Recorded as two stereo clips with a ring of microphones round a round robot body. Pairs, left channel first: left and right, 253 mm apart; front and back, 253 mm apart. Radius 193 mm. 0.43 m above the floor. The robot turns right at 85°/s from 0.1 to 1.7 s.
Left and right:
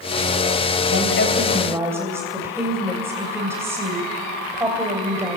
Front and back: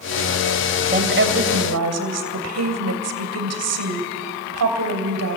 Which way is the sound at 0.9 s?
120° left.